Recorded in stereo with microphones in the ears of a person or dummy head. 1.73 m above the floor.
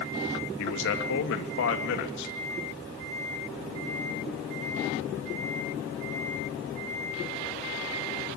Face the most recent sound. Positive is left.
turn(degrees=70)  # may be behind; listen again after turning